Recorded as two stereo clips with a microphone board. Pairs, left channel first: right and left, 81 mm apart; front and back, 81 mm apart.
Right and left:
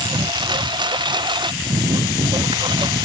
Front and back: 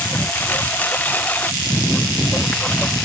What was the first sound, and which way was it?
A lawn mower, 70° left.